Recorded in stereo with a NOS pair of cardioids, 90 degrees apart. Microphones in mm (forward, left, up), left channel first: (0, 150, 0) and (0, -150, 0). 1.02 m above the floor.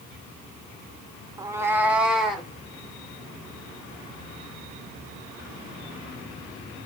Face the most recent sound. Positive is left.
turn(degrees=0)